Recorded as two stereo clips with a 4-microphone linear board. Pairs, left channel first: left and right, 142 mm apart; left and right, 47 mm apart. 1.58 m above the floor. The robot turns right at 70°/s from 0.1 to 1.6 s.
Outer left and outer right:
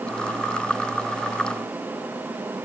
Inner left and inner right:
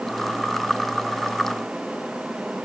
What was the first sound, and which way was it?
Only background noise.